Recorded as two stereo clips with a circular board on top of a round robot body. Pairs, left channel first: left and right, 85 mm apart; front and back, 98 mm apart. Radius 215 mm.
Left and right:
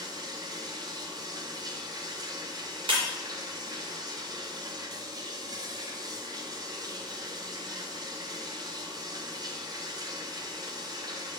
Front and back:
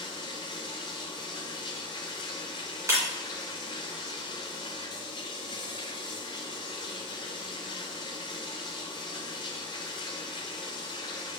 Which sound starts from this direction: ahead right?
Running water, at 0.0 s.